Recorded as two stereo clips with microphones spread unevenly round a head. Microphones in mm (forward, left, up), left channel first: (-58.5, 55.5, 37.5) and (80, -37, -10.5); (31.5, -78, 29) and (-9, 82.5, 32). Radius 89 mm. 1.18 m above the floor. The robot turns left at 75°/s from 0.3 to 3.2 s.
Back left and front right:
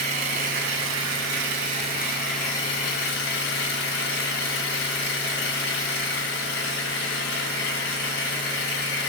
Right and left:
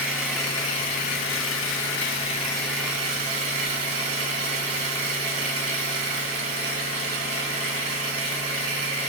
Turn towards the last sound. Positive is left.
turn(degrees=165)